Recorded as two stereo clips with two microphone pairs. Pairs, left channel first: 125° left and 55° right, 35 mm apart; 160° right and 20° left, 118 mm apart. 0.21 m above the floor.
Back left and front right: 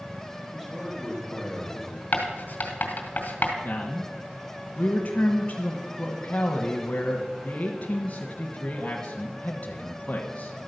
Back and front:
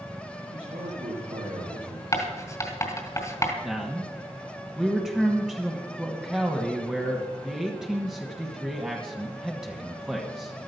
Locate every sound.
0.5 s a man speaking: 25° left, 7.5 m
2.1 s writing: 140° left, 2.5 m
3.6 s a man speaking: 105° left, 1.4 m